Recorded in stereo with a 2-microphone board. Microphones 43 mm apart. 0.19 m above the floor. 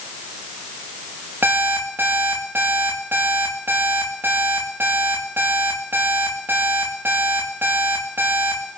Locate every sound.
1.4 s an alarm clock: 55° right (ahead or behind), 7.5 m